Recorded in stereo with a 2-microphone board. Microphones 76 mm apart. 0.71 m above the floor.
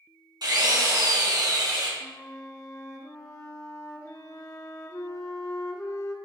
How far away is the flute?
About 1.0 m.